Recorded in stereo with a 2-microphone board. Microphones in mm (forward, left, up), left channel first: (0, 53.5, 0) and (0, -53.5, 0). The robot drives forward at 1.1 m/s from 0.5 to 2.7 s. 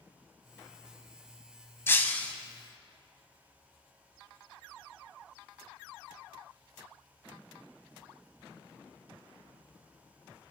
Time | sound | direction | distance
1.9 | breaking glass | 25° left (ahead or behind) | 0.7 m